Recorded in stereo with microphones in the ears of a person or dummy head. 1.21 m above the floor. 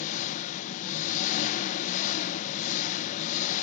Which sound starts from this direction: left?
An engine running, at 0.0 s.